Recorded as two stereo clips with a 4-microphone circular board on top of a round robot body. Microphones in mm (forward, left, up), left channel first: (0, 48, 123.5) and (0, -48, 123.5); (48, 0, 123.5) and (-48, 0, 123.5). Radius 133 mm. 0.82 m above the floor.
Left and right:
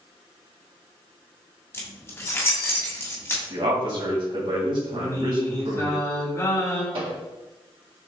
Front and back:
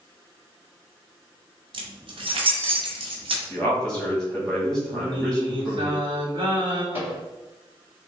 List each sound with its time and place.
1.7 s keys jangling: 155° left, 1.2 m
3.5 s a man speaking: 80° right, 2 m
4.9 s singing: 150° left, 1.5 m
6.9 s a microwave: 115° right, 1.6 m